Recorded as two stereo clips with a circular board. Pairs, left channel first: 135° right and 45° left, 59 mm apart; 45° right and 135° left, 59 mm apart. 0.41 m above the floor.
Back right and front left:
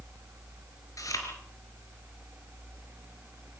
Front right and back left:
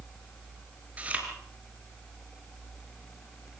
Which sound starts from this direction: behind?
Chewing, at 1.0 s.